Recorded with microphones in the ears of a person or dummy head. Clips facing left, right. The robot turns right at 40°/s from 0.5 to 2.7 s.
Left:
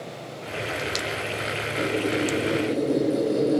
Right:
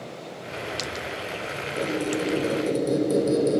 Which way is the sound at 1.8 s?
145° right.